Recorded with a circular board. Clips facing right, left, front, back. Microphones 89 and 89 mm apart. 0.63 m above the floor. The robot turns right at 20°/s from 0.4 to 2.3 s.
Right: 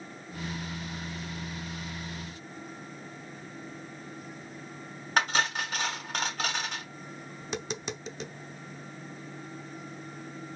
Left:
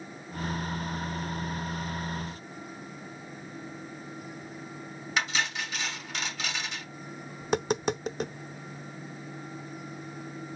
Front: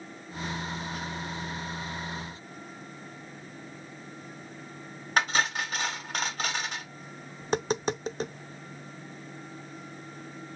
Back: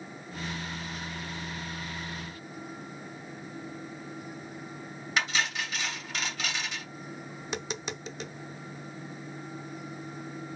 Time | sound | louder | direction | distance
5.2 | cutlery clinking | right 3 dB, front 4 dB | 50° right | 1.5 m
7.4 | tapping | left 9 dB, front 10 dB | 50° left | 0.6 m